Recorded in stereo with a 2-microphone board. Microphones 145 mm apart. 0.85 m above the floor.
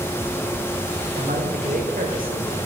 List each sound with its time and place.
1.2 s a man speaking: 70° right (ahead or behind), 2 m; by 2.6 s 80° right, 3 m